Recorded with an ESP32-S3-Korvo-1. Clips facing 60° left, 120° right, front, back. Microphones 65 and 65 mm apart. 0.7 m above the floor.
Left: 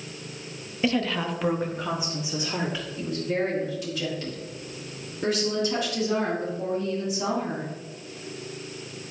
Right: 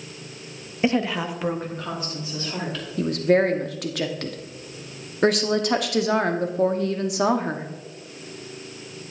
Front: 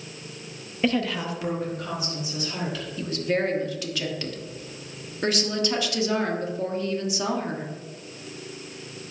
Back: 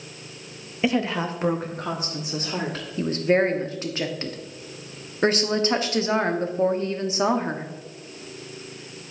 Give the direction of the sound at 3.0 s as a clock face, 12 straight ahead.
4 o'clock.